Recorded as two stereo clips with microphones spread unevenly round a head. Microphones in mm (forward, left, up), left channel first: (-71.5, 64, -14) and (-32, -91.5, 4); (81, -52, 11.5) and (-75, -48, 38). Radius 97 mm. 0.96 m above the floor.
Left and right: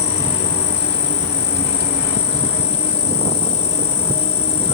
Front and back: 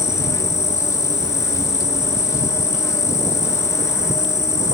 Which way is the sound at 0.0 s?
60° left.